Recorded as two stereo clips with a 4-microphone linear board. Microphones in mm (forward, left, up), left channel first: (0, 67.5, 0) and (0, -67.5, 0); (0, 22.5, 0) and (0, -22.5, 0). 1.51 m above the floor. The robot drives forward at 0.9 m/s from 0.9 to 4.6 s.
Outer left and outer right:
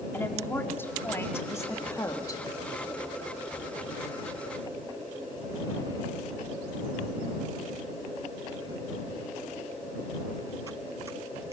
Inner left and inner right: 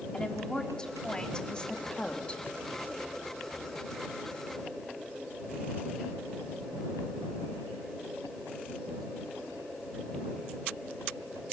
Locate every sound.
0.1 s a woman speaking: 15° left (ahead or behind), 3.5 m; by 2.4 s 25° left (ahead or behind), 2.5 m